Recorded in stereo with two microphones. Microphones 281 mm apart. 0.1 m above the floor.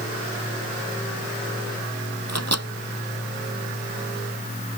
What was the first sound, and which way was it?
A microwave, 65° right (ahead or behind).